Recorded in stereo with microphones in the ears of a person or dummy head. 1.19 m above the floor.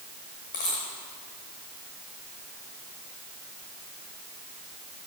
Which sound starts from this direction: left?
A dropped coin, at 0.5 s.